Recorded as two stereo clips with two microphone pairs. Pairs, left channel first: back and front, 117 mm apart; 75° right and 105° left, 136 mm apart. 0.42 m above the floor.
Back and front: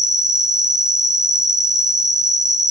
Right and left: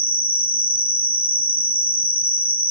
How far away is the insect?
About 0.7 m.